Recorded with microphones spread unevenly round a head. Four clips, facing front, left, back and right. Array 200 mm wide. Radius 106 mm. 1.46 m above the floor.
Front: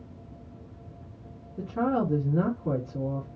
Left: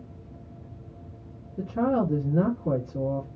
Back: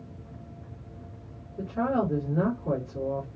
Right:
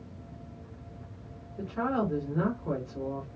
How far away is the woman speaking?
About 3 m.